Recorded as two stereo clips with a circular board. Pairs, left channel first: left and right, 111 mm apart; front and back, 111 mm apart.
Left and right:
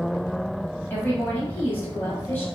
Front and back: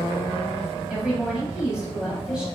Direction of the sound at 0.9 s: 115° left.